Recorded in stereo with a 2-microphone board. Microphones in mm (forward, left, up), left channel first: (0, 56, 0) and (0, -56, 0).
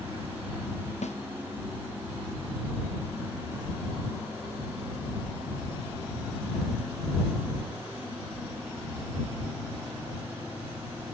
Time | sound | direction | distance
1.0 | a snare drum | 90° left | ?